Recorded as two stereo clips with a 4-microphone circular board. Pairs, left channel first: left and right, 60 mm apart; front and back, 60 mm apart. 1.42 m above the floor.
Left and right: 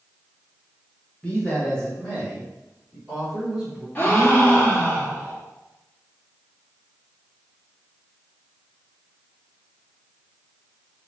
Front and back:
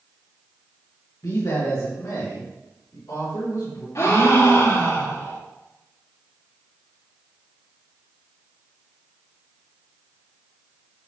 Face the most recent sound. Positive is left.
turn(degrees=30)